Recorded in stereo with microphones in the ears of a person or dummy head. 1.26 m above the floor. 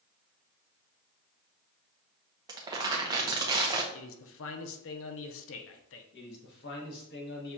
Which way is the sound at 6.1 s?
55° left (ahead or behind).